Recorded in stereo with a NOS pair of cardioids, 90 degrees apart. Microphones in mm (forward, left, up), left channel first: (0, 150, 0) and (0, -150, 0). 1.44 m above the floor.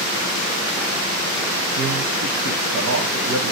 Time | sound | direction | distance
1.8 | a man speaking | 55° right | 1.2 m